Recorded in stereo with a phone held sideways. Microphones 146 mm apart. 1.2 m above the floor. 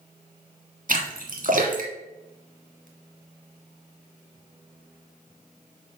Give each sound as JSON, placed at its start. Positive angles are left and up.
{"t": 0.9, "sound": "a splash", "side_deg": -65, "distance_m": 1.7}